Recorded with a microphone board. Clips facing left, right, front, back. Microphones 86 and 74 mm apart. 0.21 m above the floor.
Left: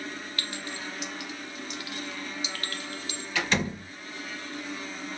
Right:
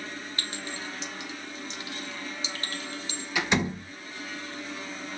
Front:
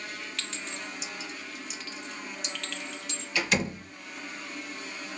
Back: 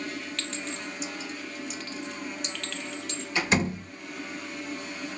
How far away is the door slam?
About 0.9 m.